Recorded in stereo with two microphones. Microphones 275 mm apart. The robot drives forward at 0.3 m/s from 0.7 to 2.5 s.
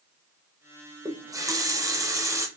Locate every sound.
1.1 s a running tap: 10° right (ahead or behind), 0.6 m